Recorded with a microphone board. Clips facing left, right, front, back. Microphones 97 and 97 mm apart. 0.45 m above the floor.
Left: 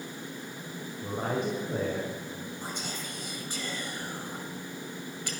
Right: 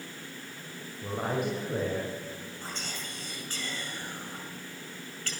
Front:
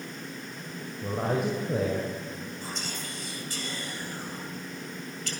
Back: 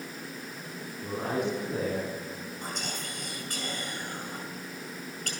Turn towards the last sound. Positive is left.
turn(degrees=155)